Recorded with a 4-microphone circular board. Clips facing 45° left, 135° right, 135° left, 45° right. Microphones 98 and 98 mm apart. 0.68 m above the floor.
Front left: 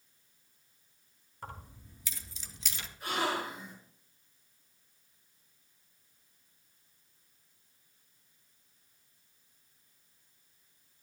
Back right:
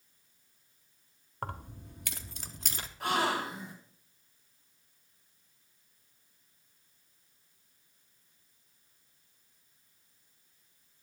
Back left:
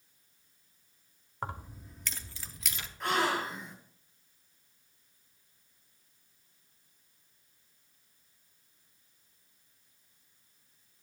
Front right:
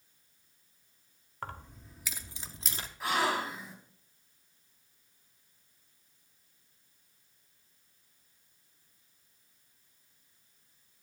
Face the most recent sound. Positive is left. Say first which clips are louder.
# back right 3 dB, even
turn(degrees=-130)